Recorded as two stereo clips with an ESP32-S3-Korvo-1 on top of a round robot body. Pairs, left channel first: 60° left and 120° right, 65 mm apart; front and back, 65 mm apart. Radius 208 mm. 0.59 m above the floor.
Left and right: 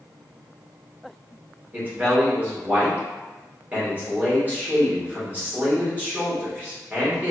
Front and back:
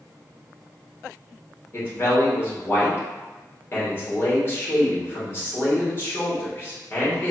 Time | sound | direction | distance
1.7 | a man speaking | 55° right | 1.8 m